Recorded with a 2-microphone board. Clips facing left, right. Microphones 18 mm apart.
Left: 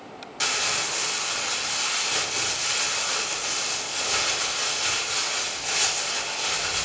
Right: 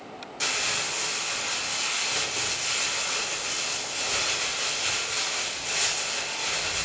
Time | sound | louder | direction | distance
0.4 | crumpling | left 2 dB | 25° left (ahead or behind) | 0.7 m